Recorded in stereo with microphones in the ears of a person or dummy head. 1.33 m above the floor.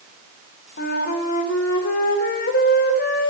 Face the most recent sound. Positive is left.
turn(degrees=60)  # may be behind; listen again after turning